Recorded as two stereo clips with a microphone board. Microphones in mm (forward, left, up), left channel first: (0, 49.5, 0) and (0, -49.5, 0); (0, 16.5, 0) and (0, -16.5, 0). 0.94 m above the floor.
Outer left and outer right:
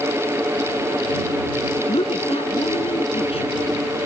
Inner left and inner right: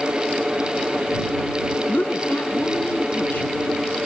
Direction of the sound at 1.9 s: 80° left.